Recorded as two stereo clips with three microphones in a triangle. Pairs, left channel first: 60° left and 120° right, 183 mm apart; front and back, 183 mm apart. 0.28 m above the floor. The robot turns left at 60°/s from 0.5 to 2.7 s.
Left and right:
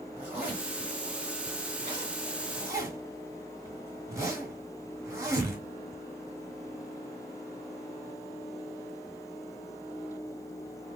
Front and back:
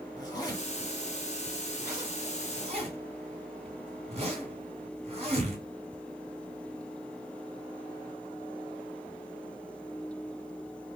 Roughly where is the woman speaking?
I don't hear a woman speaking.